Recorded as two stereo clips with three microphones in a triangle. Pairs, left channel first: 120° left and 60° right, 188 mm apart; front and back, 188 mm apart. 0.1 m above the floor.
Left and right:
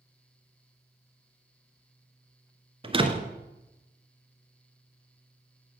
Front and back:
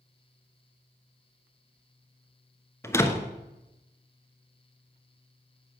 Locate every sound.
2.8 s a door slam: 60° right, 1.1 m